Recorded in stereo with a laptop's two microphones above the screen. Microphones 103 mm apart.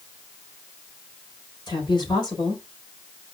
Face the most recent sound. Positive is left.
turn(degrees=45)  # may be behind; listen again after turning